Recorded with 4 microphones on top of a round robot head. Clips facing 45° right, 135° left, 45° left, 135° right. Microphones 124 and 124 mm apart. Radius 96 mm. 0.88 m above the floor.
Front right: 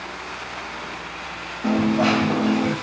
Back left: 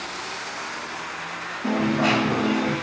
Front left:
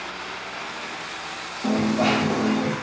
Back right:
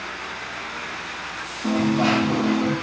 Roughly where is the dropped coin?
Ahead.